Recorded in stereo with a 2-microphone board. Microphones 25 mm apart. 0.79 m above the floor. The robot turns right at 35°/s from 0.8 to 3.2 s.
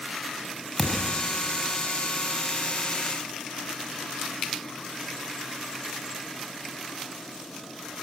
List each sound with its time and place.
0.8 s a thud: 15° left (ahead or behind), 2.5 m; by 1.3 s 5° right (ahead or behind), 2.5 m